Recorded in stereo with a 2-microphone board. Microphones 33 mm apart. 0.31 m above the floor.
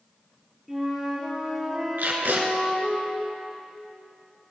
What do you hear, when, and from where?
0.7 s a flute: 5° right (ahead or behind), 4 m
2.0 s tape being pulled: 80° right, 2 m